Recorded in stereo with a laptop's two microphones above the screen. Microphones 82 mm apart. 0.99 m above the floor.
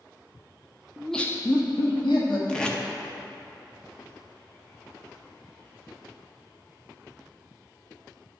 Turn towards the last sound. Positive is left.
turn(degrees=10)  # may be behind; listen again after turning